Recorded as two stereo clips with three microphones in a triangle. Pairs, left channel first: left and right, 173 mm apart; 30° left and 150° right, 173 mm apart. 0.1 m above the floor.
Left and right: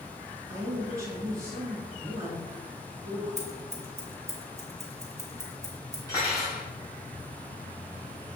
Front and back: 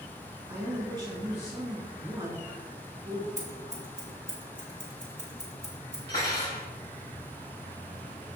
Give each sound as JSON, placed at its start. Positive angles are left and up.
{"t": 0.5, "sound": "a man speaking", "azimuth_deg": -140, "distance_m": 1.8}
{"t": 3.4, "sound": "scissors", "azimuth_deg": -115, "distance_m": 1.9}
{"t": 6.1, "sound": "cutlery clinking", "azimuth_deg": 20, "distance_m": 1.9}